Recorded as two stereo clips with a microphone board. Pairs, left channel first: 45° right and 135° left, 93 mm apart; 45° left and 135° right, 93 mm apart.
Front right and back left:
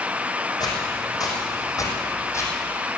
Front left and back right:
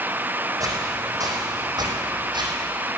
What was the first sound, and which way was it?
Footsteps, 85° right.